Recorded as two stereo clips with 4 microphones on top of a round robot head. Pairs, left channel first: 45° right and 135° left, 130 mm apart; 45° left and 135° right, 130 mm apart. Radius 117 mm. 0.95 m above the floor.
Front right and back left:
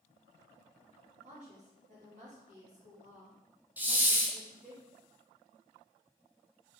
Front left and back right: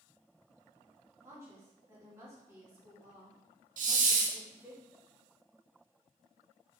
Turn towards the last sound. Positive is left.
turn(degrees=-145)